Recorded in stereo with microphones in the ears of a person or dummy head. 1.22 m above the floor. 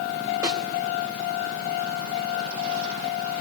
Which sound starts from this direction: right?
A snare drum, at 0.4 s.